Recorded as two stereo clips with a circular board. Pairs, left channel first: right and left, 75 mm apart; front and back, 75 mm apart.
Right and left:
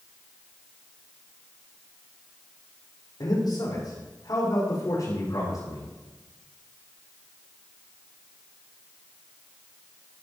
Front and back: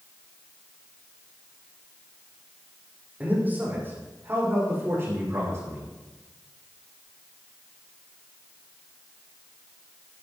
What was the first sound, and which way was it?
A man speaking, 115° right.